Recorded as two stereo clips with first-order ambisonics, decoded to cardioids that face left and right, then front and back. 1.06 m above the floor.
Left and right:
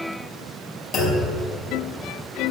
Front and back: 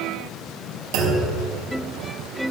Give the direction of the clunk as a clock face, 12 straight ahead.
7 o'clock.